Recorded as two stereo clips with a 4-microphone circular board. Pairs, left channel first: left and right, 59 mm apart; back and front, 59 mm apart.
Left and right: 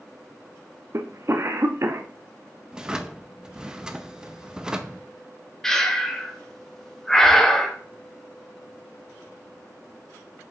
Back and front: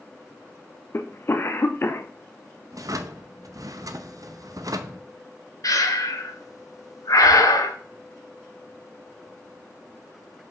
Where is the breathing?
170° left, 0.9 m.